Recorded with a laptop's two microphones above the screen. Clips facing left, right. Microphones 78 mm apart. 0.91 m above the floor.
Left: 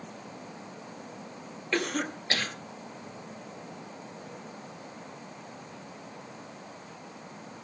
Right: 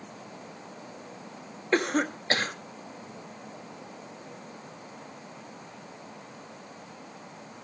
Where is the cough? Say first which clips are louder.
Right 5 dB; 35° right (ahead or behind), 1.2 m.